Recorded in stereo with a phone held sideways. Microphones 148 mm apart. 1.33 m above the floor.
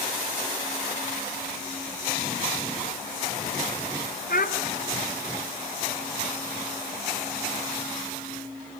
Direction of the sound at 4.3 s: 75° left (ahead or behind).